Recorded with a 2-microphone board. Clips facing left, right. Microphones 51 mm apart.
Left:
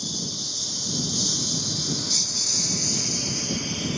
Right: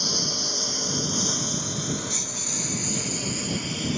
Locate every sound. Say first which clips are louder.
0.0 s a lawn mower: right 4 dB; 60° right (ahead or behind); by 4.0 s centre (ahead or behind)